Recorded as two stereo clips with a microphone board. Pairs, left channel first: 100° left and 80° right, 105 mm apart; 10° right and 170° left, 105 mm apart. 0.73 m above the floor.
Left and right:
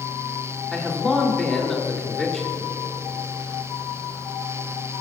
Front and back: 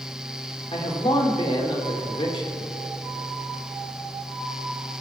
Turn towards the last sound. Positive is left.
turn(degrees=15)